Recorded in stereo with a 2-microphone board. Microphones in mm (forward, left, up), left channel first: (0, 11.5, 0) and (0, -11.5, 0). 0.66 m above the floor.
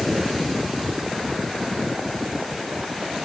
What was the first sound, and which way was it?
Only background noise.